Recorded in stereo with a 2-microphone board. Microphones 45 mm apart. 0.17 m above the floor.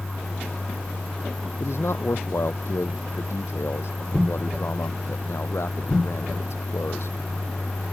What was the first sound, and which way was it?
A man speaking, 70° left (ahead or behind).